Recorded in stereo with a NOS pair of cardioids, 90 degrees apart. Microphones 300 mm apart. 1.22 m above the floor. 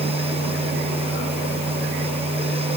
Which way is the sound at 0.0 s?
20° right.